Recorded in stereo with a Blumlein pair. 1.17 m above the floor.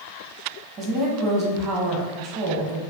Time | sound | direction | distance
0.8 | a woman speaking | 30° right | 0.8 m